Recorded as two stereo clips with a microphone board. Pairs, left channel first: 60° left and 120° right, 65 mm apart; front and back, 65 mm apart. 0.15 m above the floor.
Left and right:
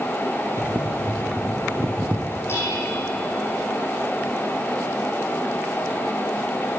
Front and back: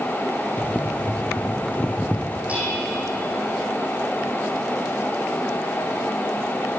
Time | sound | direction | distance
0.6 | boiling | 70° right | 1.2 m
2.5 | dishes clattering | 110° left | 5 m